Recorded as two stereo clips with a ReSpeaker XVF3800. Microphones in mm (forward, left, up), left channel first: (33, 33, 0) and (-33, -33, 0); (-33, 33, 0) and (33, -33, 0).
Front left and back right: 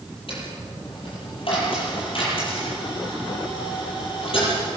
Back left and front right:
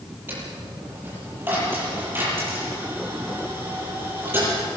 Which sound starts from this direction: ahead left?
A dropped coin, at 0.3 s.